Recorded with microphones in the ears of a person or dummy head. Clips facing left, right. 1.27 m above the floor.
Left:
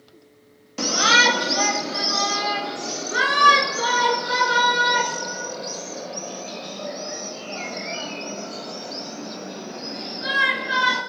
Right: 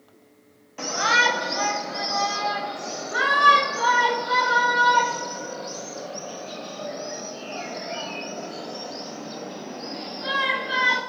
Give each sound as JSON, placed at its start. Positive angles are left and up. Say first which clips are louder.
{"t": 0.8, "sound": "a shout", "louder": "left 3 dB", "side_deg": 55, "distance_m": 1.7}